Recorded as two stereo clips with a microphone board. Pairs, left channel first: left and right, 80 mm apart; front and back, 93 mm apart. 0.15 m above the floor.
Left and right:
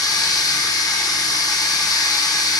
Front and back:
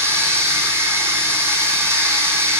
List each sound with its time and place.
0.0 s running water: 120° left, 0.7 m